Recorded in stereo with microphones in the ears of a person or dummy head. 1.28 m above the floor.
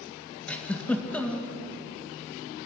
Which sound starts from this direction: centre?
A giggle, at 0.5 s.